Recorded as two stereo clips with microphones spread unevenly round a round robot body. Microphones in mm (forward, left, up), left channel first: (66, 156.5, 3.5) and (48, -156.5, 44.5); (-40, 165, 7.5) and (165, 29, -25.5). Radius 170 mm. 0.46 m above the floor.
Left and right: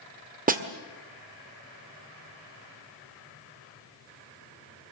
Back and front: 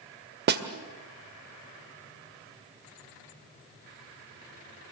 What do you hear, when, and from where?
0.5 s a snare drum: 30° right, 1.7 m